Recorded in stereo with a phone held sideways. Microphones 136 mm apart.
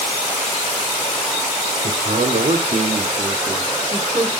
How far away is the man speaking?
About 0.9 m.